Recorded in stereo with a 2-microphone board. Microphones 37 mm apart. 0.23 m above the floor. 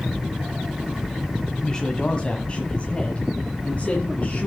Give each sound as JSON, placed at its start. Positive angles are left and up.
{"t": 1.6, "sound": "a woman speaking", "side_deg": 20, "distance_m": 1.2}